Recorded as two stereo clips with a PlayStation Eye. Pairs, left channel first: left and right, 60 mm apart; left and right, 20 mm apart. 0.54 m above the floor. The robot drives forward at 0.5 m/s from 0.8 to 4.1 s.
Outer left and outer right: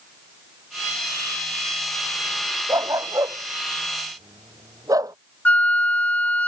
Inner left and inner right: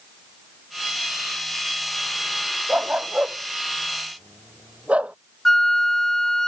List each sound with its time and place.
2.7 s a dog barking: 70° right (ahead or behind); by 5.2 s 80° right
5.5 s a flute: 30° left (ahead or behind)